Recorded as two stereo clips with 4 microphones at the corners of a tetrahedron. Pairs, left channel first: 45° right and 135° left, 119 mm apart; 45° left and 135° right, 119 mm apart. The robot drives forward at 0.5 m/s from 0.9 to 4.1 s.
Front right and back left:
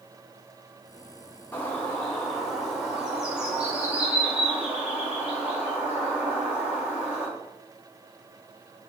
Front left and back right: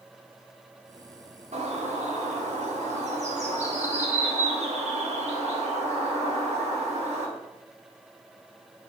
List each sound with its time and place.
1.5 s a bird: 120° right, 1.6 m; by 7.3 s 145° right, 2.5 m